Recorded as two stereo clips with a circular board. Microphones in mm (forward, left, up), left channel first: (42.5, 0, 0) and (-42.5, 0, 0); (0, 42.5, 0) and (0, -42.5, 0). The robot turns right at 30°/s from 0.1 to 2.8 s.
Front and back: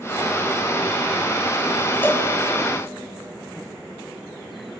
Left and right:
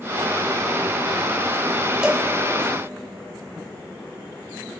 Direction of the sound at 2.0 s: 20° right.